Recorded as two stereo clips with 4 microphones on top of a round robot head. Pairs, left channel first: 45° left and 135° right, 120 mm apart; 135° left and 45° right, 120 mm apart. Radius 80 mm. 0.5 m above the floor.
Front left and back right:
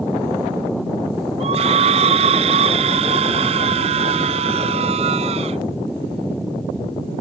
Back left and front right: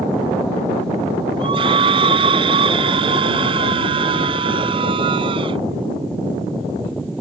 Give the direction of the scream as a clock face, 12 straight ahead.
3 o'clock.